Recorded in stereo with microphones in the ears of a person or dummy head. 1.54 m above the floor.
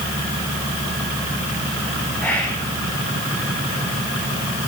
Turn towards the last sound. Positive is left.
turn(degrees=5)  # may be behind; listen again after turning